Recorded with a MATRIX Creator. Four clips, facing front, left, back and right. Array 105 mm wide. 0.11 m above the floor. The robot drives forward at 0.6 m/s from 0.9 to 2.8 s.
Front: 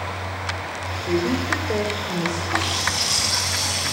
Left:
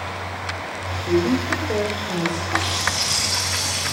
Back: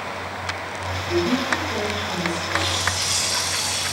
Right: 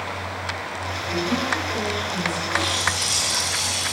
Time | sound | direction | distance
1.1 | a woman speaking | 35° left | 7.5 m
2.5 | a running tap | 40° left | 6.5 m